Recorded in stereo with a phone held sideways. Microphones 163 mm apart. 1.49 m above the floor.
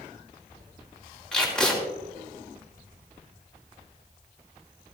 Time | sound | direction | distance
1.3 | tape being pulled | 5° left (ahead or behind) | 2.5 m